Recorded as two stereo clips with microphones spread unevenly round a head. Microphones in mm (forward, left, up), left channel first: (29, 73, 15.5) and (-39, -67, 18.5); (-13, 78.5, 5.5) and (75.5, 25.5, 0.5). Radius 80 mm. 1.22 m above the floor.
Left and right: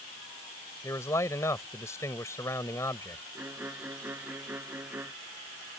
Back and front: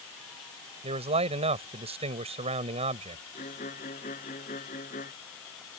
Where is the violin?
165° left.